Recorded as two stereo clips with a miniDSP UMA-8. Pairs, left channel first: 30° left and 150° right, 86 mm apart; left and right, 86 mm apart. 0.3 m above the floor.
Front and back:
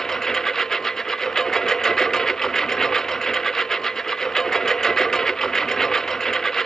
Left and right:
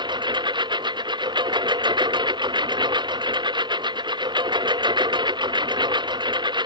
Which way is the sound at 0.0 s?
55° right.